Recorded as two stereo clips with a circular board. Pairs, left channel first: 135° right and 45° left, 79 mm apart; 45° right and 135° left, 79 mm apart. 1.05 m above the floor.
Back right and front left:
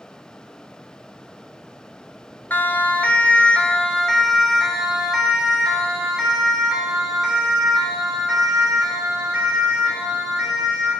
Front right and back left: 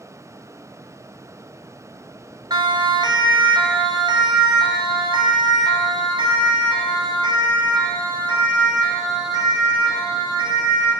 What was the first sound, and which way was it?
A siren, 155° left.